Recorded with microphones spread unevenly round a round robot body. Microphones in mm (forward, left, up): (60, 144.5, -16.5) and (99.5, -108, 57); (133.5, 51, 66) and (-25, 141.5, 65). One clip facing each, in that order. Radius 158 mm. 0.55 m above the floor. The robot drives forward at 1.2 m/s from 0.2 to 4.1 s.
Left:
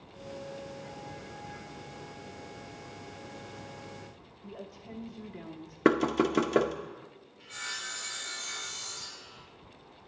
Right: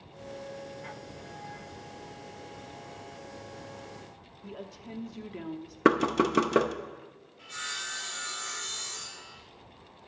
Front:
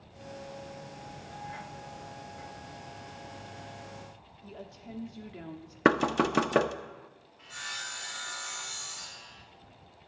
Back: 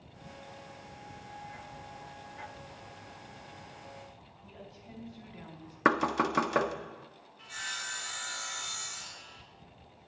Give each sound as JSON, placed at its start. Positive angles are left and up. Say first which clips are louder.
{"t": 4.4, "sound": "a woman speaking", "louder": "right 2 dB, front 5 dB", "azimuth_deg": -45, "distance_m": 0.9}
{"t": 5.8, "sound": "knocking", "louder": "even, front 4 dB", "azimuth_deg": 15, "distance_m": 0.6}
{"t": 7.4, "sound": "sawing", "louder": "right 1 dB, front 1 dB", "azimuth_deg": -160, "distance_m": 2.0}